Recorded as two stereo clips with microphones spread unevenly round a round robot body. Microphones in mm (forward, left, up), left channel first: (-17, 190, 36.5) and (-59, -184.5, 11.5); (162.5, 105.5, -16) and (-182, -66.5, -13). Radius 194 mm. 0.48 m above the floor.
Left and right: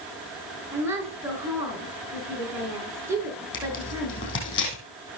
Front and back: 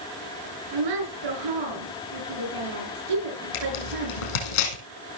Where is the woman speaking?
Straight behind, 6 m.